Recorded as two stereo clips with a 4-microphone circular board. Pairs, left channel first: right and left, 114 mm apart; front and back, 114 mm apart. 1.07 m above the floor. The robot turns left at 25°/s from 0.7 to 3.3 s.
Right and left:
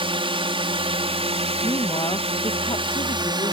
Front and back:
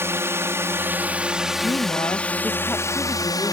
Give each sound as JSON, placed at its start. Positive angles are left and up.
{"t": 0.0, "sound": "a drone", "azimuth_deg": 115}
{"t": 1.6, "sound": "a woman speaking", "azimuth_deg": -40}